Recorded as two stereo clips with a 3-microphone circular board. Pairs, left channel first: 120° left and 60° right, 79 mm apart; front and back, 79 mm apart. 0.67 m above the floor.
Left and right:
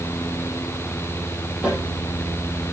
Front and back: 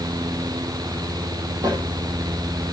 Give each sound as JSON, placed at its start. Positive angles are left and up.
{"t": 1.6, "sound": "a snare drum", "azimuth_deg": -140, "distance_m": 9.0}